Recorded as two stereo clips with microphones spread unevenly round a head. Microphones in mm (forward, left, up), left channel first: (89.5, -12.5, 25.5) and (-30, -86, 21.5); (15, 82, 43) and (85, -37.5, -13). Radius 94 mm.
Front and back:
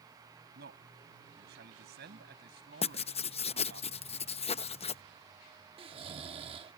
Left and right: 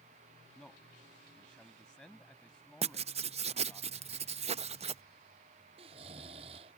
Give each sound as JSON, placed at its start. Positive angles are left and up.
{"t": 0.6, "sound": "a man speaking", "azimuth_deg": -155}
{"t": 2.8, "sound": "writing", "azimuth_deg": -5}
{"t": 5.8, "sound": "snoring", "azimuth_deg": -130}